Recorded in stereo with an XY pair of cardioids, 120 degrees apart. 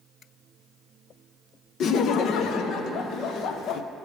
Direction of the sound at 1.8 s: 60° left.